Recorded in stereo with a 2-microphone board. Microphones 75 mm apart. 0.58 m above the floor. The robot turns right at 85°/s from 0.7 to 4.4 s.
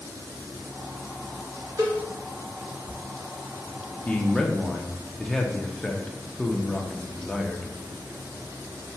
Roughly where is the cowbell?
Right.